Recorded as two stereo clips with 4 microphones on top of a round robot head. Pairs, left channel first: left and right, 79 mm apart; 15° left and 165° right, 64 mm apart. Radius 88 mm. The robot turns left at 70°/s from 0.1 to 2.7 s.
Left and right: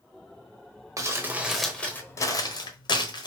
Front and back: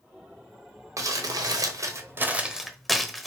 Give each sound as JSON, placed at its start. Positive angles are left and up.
{"t": 1.0, "sound": "crumpling", "azimuth_deg": -135, "distance_m": 0.9}